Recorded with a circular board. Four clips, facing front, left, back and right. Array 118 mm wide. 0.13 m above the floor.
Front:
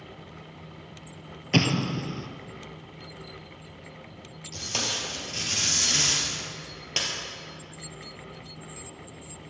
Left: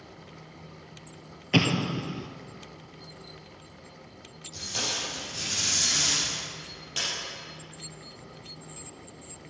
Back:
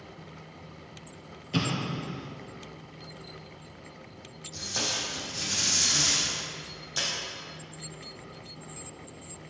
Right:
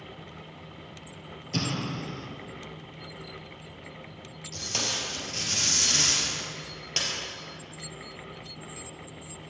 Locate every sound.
1.5 s an explosion: 45° left, 0.8 m
4.5 s tape being pulled: 25° right, 3.5 m